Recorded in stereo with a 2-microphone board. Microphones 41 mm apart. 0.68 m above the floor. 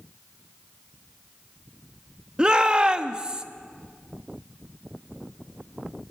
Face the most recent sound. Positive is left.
turn(degrees=-15)  # may be behind; listen again after turning